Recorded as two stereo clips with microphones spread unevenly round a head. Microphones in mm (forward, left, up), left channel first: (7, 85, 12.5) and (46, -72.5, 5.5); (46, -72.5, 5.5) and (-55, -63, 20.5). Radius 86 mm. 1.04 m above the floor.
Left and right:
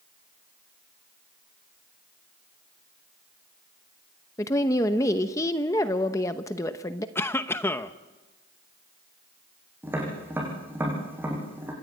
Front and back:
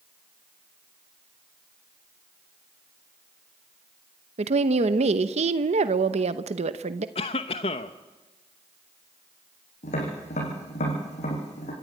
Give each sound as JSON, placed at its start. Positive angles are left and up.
{"t": 4.4, "sound": "a woman speaking", "azimuth_deg": 175, "distance_m": 0.9}
{"t": 7.2, "sound": "a cough", "azimuth_deg": 25, "distance_m": 0.9}
{"t": 9.8, "sound": "tapping", "azimuth_deg": 0, "distance_m": 7.5}